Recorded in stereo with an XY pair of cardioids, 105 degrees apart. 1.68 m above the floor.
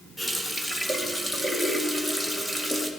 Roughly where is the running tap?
Ahead.